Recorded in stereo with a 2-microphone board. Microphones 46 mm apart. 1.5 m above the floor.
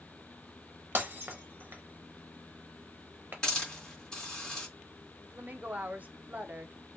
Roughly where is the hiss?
Centre.